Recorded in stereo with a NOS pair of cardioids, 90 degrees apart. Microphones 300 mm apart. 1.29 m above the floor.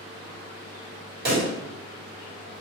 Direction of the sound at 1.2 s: 30° right.